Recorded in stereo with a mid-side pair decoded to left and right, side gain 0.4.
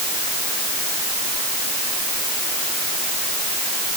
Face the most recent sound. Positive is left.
No sound to turn to.